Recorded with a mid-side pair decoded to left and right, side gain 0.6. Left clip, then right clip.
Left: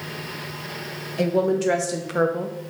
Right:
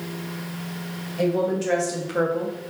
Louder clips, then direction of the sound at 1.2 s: Left 2 dB; 30° left.